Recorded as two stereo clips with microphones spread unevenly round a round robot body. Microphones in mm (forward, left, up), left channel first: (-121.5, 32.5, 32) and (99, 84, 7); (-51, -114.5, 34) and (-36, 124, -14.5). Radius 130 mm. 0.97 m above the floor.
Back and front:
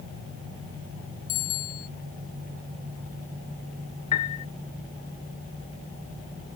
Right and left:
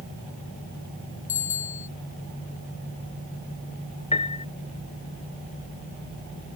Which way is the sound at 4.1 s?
155° right.